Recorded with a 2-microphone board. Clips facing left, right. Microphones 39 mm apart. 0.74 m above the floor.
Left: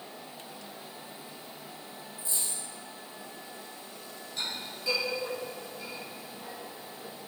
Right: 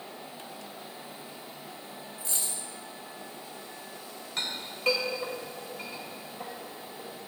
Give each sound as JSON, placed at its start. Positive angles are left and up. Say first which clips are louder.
{"t": 2.2, "sound": "a dropped coin", "louder": "right 1 dB", "side_deg": -85, "distance_m": 1.6}
{"t": 4.4, "sound": "a clink", "louder": "right 2 dB", "side_deg": -65, "distance_m": 2.5}